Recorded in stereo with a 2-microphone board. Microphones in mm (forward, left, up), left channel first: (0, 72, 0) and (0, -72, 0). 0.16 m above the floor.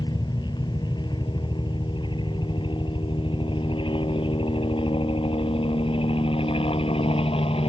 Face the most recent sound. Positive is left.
turn(degrees=40)  # may be behind; listen again after turning